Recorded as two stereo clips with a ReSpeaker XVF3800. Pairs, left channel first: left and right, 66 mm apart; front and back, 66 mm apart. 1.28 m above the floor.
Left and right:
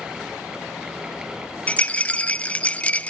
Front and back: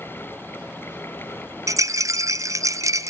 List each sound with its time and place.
1.7 s a rattle: 155° left, 0.5 m